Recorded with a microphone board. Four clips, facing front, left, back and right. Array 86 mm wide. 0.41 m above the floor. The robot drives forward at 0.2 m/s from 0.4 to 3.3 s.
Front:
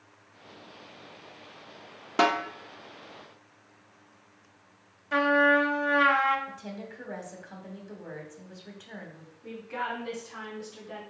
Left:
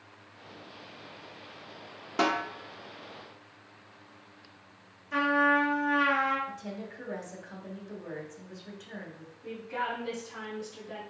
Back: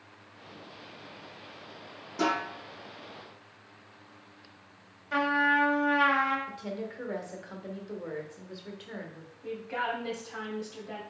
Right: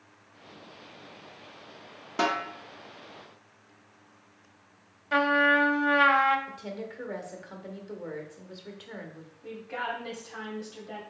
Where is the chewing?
No chewing in this recording.